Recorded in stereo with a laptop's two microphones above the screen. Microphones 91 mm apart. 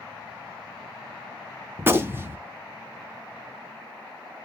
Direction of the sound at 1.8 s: 25° right (ahead or behind).